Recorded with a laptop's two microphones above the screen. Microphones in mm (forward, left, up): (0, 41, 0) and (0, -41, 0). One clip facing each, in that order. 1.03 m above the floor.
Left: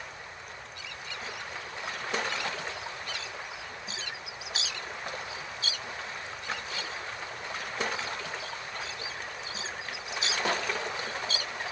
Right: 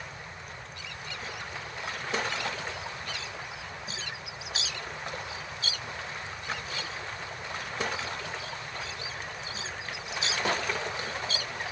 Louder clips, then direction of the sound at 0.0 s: Right 1 dB; 45° right (ahead or behind).